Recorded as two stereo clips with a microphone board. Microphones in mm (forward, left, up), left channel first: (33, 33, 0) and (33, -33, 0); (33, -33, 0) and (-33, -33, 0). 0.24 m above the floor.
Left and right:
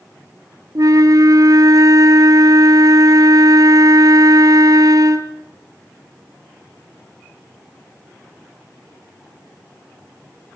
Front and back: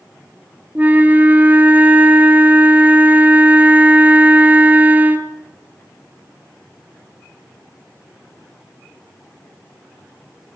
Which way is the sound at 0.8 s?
115° right.